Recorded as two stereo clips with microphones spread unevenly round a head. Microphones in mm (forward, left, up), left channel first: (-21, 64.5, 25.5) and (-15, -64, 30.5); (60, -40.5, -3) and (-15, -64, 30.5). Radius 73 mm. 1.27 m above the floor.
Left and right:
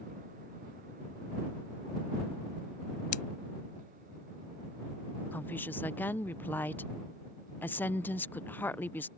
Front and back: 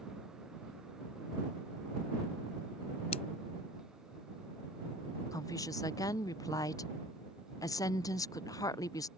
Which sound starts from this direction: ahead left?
Scissors, at 3.1 s.